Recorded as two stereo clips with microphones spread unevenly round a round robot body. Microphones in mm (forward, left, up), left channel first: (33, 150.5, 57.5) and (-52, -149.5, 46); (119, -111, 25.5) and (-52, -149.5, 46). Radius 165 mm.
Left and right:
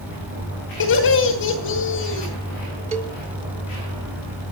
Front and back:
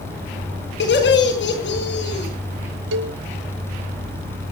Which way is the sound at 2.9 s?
175° right.